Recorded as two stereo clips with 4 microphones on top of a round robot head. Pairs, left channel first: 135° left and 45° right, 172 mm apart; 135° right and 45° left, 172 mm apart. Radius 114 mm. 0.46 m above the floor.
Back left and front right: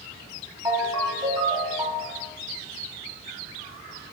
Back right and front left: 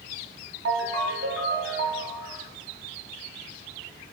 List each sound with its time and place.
0.7 s a ringtone: 25° left, 2 m